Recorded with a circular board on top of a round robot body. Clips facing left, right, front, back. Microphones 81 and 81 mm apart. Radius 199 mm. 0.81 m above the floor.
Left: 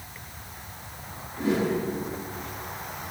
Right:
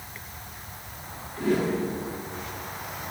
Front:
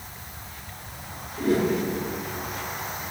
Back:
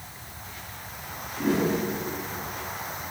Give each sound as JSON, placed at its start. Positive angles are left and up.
{"t": 1.4, "sound": "a whoosh", "azimuth_deg": 160, "distance_m": 6.5}